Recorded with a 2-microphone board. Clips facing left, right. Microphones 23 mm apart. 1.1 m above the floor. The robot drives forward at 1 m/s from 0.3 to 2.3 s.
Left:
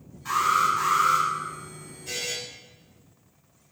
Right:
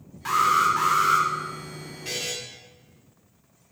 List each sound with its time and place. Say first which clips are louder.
0.2 s an alarm: right 2 dB; 75° right (ahead or behind), 3 m; by 1.3 s 60° right (ahead or behind), 3.5 m
2.0 s a buzzer: right 1 dB; 70° right (ahead or behind), 3.5 m; by 2.3 s 65° right (ahead or behind), 3.5 m